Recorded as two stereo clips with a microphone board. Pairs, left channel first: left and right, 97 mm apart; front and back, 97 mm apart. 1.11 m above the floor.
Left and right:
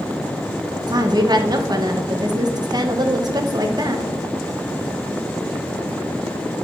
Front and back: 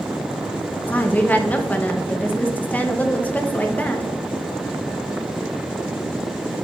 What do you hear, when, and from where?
0.9 s a woman speaking: 65° right, 1.0 m